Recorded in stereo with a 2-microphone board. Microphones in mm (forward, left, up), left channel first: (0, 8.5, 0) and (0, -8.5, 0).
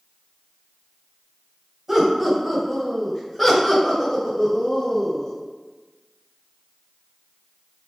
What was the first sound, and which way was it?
Laughter, 10° right (ahead or behind).